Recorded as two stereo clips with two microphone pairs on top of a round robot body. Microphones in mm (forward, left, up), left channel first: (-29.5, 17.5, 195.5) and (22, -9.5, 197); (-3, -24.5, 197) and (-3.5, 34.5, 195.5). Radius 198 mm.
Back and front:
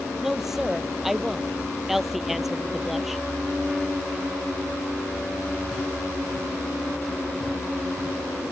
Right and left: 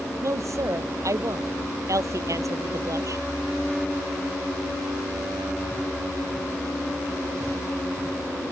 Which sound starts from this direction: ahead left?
A woman speaking, at 0.2 s.